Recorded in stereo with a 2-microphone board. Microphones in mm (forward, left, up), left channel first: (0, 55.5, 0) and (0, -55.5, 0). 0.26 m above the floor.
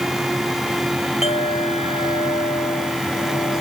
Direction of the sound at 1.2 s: 65° left (ahead or behind).